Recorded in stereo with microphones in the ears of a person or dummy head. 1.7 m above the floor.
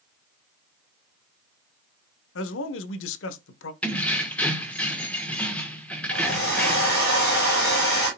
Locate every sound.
2.4 s a man speaking: 75° left (ahead or behind), 0.9 m
3.8 s keys jangling: 5° left (ahead or behind), 1.2 m
6.1 s a hair dryer: 55° left (ahead or behind), 8 m